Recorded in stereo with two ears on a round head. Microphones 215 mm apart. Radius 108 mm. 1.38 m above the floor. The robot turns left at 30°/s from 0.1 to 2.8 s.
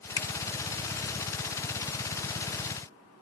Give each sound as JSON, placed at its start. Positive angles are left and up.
{"t": 0.2, "sound": "a finger snap", "side_deg": 15, "distance_m": 0.7}